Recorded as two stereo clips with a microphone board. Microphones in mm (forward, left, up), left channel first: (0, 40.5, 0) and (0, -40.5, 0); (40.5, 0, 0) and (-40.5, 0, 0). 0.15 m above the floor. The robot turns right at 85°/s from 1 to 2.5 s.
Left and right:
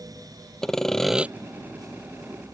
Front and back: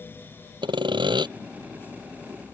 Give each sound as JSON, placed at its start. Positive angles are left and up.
{"t": 0.6, "sound": "sawing", "azimuth_deg": 175}